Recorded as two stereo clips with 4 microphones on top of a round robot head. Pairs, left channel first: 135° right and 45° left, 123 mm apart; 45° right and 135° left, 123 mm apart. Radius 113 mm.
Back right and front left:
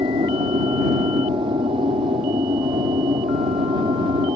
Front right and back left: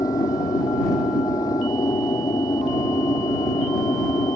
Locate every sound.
0.0 s an aircraft: 10° left